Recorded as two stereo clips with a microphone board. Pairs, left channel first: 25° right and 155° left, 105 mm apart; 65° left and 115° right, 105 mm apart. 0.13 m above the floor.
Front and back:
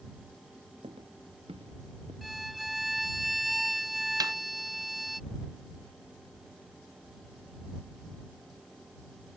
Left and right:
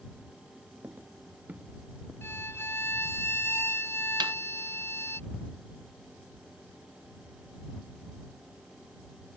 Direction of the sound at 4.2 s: 155° right.